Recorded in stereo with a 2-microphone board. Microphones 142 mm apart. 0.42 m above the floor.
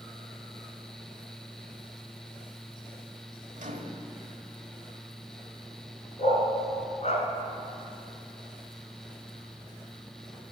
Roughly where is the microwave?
Right.